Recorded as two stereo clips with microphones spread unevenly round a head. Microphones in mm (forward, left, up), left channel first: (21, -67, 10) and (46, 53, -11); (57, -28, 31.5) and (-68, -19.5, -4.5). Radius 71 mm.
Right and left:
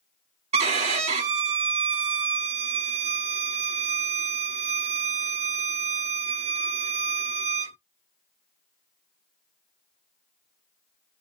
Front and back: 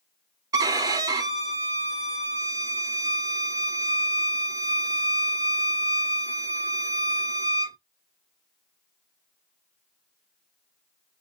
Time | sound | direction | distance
0.5 | a violin | 105° left | 0.7 m